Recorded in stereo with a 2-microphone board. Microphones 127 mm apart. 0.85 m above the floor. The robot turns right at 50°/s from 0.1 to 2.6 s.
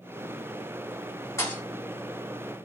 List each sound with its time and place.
1.4 s a thud: 25° left (ahead or behind), 1.8 m; by 1.6 s 10° left (ahead or behind), 1.8 m